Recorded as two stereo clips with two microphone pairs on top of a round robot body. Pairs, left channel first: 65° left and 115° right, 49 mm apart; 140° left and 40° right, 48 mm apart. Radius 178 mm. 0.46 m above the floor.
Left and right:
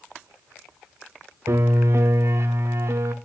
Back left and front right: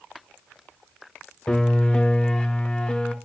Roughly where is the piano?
Behind right.